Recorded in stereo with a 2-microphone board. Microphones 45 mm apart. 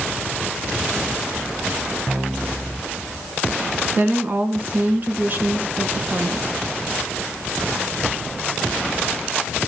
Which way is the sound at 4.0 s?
40° right (ahead or behind).